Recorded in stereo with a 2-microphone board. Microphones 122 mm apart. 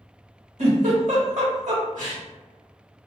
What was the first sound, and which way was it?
A giggle, 65° right (ahead or behind).